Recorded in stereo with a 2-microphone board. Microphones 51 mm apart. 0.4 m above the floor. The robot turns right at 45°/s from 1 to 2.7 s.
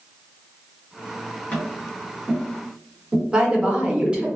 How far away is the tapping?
About 1.6 m.